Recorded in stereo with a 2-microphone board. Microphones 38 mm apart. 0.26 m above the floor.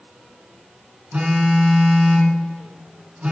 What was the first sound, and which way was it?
A phone buzzing, 40° right (ahead or behind).